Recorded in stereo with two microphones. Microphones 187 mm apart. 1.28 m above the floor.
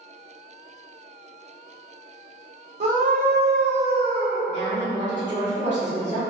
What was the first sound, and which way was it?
A scream, 35° right (ahead or behind).